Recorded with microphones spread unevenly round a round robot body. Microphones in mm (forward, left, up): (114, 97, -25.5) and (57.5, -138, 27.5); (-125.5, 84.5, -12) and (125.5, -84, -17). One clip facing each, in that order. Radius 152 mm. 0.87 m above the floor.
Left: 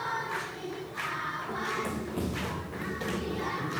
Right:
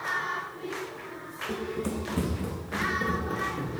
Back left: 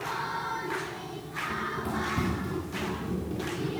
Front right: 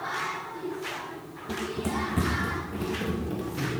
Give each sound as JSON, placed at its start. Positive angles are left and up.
{"t": 1.5, "sound": "running footsteps", "azimuth_deg": -40, "distance_m": 3.0}